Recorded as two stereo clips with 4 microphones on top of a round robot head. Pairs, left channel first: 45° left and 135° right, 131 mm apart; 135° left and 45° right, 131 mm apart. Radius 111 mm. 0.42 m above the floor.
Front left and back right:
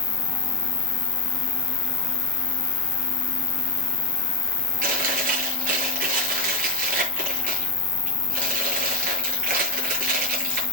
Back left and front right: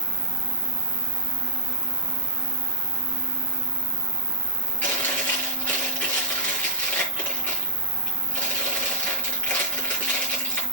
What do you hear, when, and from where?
0.0 s an insect: 40° left, 1.6 m
4.8 s chewing: 145° right, 8 m